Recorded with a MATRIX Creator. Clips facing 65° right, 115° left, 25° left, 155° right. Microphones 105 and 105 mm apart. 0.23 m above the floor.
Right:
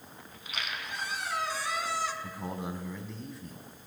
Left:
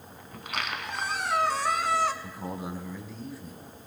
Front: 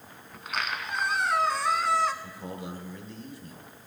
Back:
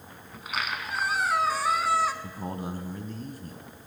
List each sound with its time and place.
0.3 s a squeak: 115° left, 0.7 m
2.2 s a man speaking: 160° right, 1.4 m